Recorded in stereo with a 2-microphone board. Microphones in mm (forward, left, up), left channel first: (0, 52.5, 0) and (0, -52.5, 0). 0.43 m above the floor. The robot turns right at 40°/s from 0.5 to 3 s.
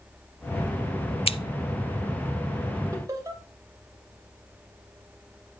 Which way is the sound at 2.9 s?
30° right (ahead or behind).